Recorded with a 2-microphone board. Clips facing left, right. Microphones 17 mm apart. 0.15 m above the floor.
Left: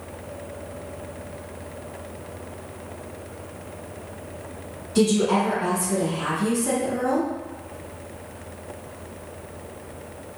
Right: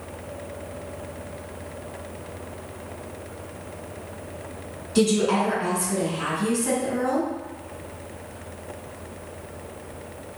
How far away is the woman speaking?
About 1.5 m.